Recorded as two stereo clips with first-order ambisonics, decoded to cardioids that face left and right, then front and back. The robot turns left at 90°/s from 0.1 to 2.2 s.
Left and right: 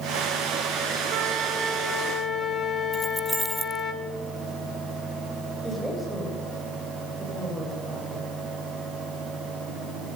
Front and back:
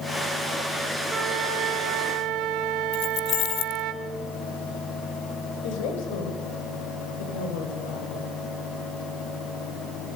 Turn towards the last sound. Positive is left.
turn(degrees=0)